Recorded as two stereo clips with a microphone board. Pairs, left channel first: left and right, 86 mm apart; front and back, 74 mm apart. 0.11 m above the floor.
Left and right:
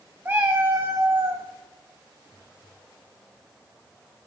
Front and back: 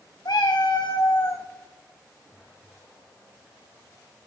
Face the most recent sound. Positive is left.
turn(degrees=-50)